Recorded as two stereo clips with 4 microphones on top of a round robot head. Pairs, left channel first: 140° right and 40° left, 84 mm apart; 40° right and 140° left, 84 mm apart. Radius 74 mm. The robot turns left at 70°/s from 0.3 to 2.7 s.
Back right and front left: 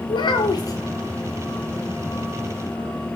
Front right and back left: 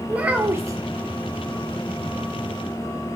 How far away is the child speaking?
About 0.8 m.